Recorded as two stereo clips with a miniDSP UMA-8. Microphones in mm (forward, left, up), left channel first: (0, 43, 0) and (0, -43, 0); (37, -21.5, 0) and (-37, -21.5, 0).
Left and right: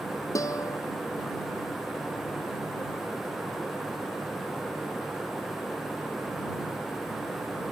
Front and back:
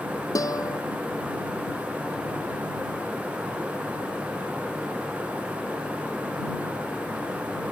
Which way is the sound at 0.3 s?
40° left.